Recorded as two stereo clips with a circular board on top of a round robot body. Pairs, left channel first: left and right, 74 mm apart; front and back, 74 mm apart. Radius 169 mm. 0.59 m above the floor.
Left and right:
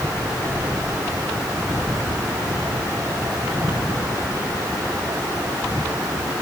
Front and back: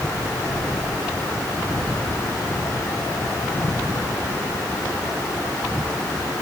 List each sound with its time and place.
Only background noise.